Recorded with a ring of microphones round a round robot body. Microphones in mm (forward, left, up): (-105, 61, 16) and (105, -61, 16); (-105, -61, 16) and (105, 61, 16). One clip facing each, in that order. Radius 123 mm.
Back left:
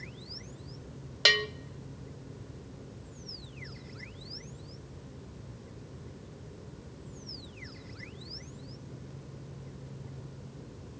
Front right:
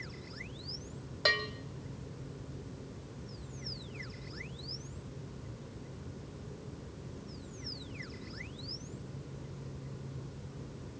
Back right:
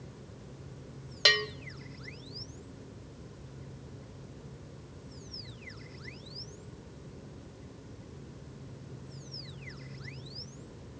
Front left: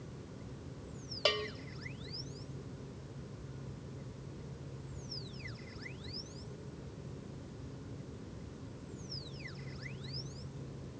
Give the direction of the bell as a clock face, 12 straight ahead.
7 o'clock.